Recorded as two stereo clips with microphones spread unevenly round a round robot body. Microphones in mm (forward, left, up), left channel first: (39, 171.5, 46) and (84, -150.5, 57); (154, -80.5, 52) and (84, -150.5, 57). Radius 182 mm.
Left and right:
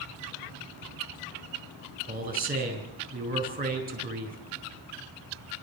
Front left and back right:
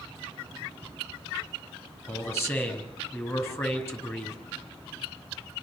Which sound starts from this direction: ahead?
A man speaking, at 2.1 s.